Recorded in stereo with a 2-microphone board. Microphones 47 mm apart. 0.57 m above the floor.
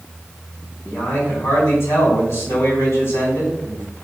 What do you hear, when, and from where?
0.8 s a man speaking: 75° left (ahead or behind), 4 m